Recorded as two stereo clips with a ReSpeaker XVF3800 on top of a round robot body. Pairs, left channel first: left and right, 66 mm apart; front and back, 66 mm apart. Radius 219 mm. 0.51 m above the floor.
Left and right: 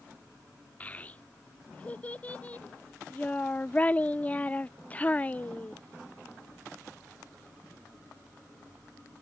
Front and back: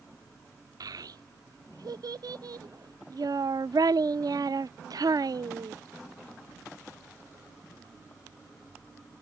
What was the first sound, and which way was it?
A child speaking, 160° left.